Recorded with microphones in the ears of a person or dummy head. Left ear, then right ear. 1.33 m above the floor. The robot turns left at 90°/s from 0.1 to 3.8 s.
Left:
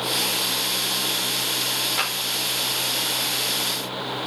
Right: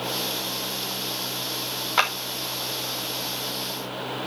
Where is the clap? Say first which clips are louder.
Right 8 dB; 50° right (ahead or behind), 1.8 m; by 2.1 s 35° right (ahead or behind), 1.8 m.